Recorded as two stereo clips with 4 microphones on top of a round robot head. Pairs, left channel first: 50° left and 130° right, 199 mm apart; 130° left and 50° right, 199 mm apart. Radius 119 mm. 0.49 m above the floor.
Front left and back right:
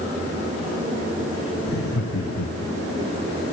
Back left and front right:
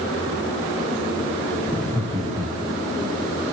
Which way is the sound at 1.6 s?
20° left.